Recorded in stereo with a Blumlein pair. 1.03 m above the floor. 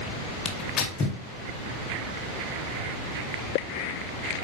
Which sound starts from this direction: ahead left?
Tearing paper, at 0.5 s.